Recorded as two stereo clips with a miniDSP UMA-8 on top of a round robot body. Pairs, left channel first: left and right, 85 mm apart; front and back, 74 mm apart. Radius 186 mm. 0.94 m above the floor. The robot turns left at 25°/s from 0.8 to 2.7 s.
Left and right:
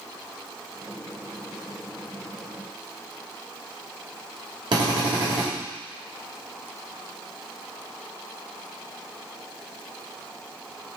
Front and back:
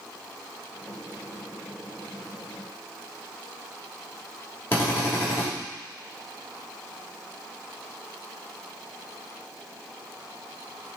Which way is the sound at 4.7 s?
60° right.